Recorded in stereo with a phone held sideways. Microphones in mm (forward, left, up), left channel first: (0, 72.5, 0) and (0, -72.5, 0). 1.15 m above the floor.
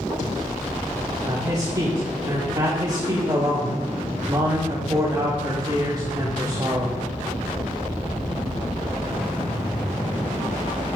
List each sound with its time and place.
1.2 s a man speaking: 30° right (ahead or behind), 2.5 m